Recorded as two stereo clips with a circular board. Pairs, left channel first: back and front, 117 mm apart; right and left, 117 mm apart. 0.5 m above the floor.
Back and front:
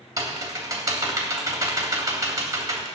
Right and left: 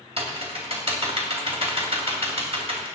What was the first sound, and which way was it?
Typing on a keyboard, 60° left.